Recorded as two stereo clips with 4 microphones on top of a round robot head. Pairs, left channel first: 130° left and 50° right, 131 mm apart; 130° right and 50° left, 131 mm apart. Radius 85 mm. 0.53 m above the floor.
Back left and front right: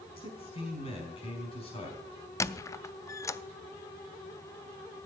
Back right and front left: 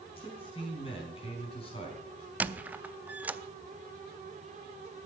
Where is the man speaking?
Straight behind, 4 m.